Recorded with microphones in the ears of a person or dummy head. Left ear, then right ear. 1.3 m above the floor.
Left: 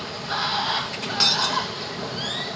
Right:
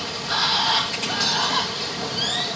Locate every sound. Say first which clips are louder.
0.0 s running water: right 4 dB; 5° right (ahead or behind), 0.7 m
1.2 s breaking glass: left 2 dB; 45° left (ahead or behind), 2.5 m